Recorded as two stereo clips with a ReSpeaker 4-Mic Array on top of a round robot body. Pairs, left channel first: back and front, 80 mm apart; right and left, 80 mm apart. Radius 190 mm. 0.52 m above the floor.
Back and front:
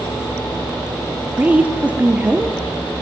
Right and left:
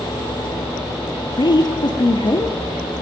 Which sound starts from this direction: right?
A woman speaking, at 1.4 s.